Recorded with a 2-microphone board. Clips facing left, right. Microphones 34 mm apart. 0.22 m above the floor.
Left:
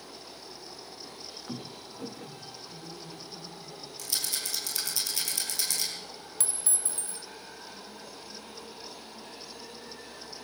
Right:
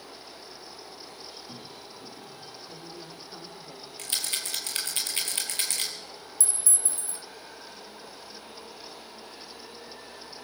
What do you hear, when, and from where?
1.0 s footsteps: 25° left (ahead or behind), 4 m; by 2.4 s 45° left (ahead or behind), 4 m
2.7 s a woman speaking: 65° right (ahead or behind), 9.5 m
4.0 s a rattle: 50° right (ahead or behind), 5 m
6.4 s a clink: 50° left (ahead or behind), 1.0 m